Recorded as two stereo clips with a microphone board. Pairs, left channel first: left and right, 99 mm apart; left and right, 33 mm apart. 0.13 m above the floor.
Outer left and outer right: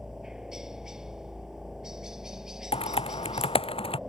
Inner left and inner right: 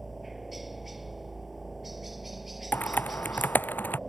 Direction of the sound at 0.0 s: 5° right (ahead or behind).